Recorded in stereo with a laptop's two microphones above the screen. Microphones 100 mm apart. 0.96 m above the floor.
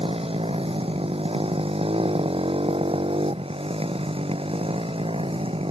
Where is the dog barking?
I don't hear a dog barking.